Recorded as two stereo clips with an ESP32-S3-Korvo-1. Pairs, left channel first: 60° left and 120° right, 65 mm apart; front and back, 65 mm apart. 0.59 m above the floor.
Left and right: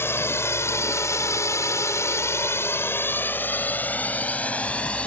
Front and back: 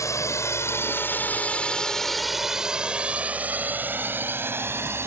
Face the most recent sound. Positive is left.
turn(degrees=130)